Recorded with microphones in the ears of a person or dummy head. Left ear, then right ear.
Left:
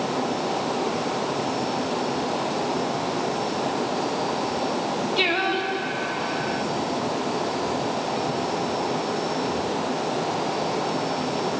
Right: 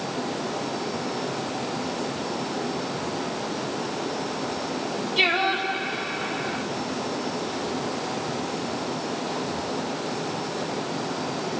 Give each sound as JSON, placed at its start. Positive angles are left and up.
{"t": 5.2, "sound": "singing", "side_deg": -20, "distance_m": 2.5}